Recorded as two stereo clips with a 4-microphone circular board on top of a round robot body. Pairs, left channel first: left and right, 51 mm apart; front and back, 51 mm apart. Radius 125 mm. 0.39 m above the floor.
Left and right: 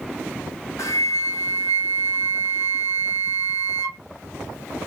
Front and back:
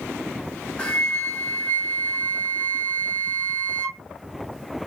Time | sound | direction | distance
0.8 | a flute | 75° left | 0.7 m